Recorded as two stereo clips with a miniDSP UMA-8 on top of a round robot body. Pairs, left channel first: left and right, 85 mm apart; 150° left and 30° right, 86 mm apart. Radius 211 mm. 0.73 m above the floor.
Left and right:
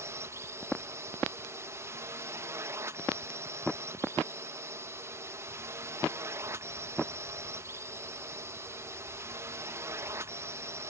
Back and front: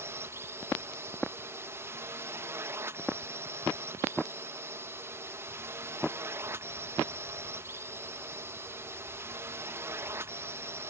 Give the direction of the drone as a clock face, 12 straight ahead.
2 o'clock.